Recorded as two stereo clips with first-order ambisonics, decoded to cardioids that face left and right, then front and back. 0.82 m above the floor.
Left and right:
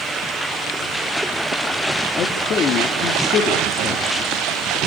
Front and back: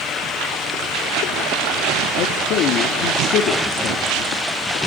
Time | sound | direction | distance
2.2 | a man speaking | 35° left | 1.3 m